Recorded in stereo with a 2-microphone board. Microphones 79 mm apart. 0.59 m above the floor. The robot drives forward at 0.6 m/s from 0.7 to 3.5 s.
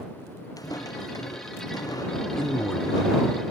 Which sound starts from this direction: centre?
A man speaking, at 2.4 s.